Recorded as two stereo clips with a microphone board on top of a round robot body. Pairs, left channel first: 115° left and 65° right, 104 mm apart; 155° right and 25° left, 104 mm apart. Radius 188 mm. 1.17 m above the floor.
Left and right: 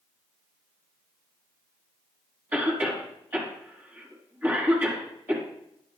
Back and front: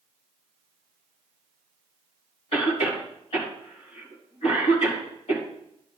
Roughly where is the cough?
Behind right.